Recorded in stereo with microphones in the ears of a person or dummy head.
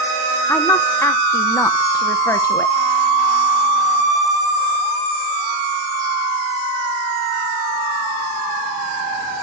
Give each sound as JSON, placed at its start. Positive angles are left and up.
{"t": 0.5, "sound": "a woman speaking", "side_deg": 15, "distance_m": 0.8}